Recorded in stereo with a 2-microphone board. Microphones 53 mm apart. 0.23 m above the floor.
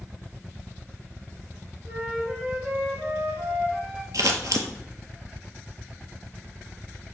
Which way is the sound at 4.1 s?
85° right.